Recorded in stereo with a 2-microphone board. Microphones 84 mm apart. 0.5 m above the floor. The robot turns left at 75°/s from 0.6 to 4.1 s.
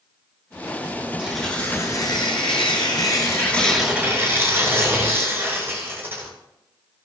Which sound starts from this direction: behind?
Tearing paper, at 1.2 s.